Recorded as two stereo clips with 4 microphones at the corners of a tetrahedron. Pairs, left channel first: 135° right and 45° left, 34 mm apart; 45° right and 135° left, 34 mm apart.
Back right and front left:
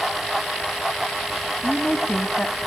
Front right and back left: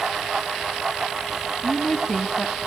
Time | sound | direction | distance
1.6 | a woman speaking | 115° right | 1.0 m